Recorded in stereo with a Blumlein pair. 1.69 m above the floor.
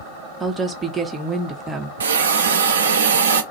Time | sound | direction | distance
0.4 | a woman speaking | 10° right | 0.6 m
2.0 | a hiss | 65° right | 0.5 m